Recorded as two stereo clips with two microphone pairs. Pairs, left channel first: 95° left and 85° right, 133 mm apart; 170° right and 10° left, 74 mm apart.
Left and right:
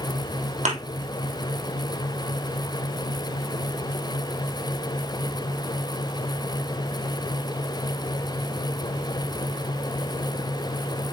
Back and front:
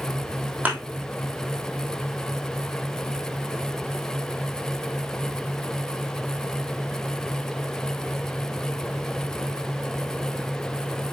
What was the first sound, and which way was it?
A thud, 60° right.